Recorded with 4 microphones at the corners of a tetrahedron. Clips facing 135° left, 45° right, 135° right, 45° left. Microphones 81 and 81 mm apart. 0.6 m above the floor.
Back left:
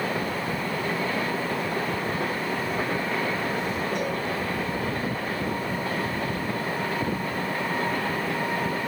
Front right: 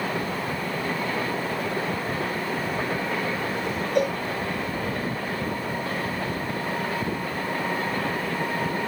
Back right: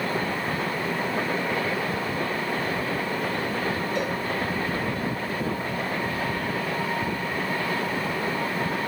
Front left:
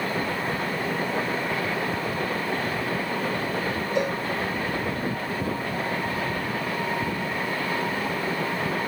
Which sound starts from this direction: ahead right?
A cowbell, at 4.0 s.